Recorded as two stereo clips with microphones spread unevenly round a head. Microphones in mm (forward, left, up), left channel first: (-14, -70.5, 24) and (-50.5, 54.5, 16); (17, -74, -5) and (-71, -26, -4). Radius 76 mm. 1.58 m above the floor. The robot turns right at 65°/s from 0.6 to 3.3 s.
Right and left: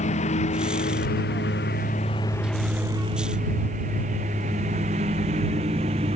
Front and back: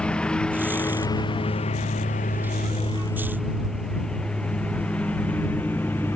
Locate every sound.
0.0 s a lawn mower: 110° right; by 6.2 s 50° left